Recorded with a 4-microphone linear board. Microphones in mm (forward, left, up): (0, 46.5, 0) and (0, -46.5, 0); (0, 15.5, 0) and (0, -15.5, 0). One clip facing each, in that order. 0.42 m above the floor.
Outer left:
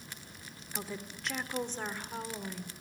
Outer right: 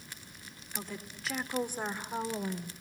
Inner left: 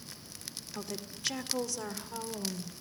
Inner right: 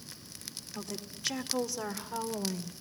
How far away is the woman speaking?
About 1.4 m.